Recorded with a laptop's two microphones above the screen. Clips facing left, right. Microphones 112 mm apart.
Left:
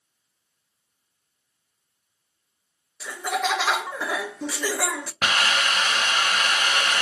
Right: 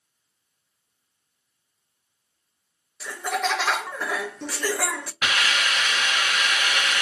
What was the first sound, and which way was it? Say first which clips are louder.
Laughter: even; 5° left (ahead or behind).